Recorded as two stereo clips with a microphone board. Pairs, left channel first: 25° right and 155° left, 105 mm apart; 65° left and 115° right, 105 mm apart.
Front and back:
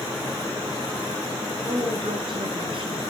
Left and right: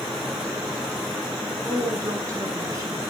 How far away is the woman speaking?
About 5 m.